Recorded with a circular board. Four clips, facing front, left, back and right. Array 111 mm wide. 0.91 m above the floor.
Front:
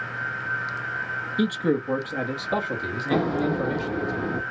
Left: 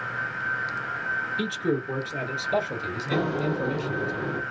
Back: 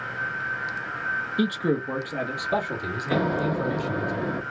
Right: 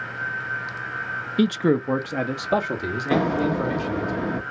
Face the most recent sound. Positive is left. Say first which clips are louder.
# right 5 dB, front 1 dB
turn(degrees=-95)